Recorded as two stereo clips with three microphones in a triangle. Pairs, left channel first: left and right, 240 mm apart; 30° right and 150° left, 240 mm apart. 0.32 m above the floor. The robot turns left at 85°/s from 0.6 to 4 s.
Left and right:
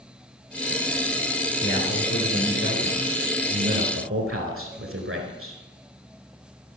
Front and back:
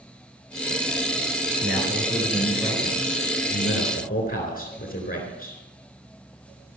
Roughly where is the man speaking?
Behind left.